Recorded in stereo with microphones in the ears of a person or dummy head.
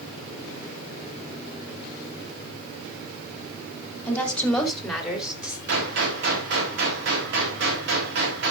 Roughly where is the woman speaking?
Centre.